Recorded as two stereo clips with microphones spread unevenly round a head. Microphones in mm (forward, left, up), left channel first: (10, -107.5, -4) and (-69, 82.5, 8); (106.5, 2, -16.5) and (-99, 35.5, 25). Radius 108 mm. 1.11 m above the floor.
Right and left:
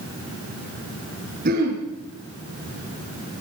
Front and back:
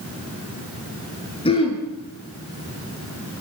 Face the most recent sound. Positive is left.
turn(degrees=60)